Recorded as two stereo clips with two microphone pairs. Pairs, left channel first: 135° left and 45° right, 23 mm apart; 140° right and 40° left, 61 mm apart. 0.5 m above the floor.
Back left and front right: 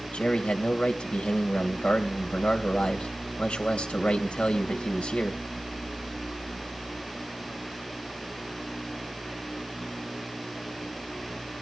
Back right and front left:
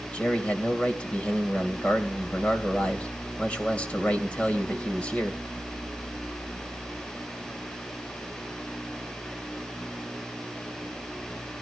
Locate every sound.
0.1 s a man speaking: 155° left, 2.5 m